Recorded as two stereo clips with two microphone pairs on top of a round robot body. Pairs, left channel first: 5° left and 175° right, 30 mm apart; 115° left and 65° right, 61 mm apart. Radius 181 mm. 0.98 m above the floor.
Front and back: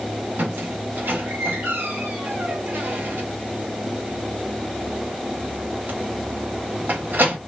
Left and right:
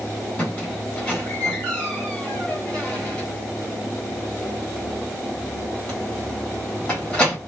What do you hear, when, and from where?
0.4 s a squeak: 170° right, 1.1 m